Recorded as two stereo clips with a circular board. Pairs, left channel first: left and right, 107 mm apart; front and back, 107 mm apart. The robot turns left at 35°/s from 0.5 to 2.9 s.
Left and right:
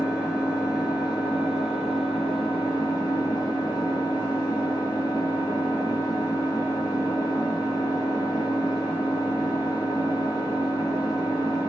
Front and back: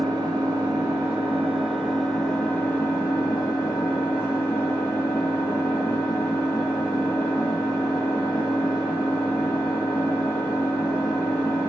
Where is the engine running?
140° left, 1.6 m; by 11.7 s 55° left, 1.6 m.